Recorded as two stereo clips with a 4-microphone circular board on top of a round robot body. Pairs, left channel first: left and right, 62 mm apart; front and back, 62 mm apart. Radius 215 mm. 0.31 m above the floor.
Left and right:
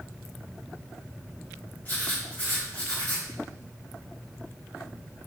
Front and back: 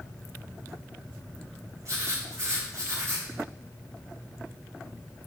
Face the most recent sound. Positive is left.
turn(degrees=150)